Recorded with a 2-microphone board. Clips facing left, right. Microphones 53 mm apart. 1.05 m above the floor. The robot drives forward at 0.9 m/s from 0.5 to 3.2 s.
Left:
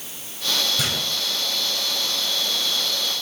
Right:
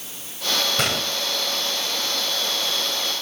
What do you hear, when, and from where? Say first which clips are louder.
0.8 s a gunshot: right 2 dB; 60° right (ahead or behind), 1.5 m; by 1.1 s 65° right (ahead or behind), 1.4 m